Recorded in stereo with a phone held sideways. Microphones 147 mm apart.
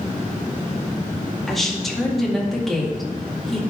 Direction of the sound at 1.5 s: Centre (ahead or behind).